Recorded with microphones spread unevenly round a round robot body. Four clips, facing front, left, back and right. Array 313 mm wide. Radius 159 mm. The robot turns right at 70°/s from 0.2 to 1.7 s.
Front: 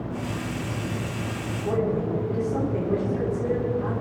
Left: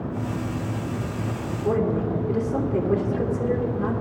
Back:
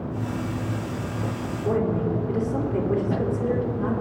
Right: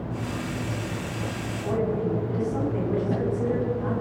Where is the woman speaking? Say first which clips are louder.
Left 4 dB, even; 100° left, 2.5 m; by 3.9 s 110° left, 2.5 m.